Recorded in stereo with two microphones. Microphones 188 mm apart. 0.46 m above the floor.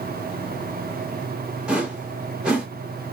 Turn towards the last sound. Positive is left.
turn(degrees=-5)  # may be behind; listen again after turning